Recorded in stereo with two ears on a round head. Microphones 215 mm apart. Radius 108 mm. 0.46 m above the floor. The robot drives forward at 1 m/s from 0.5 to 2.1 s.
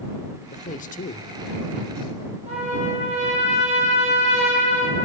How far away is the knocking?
I don't hear knocking.